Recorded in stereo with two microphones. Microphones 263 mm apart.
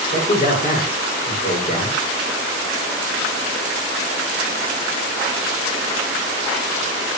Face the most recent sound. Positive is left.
turn(degrees=40)  # may be behind; listen again after turning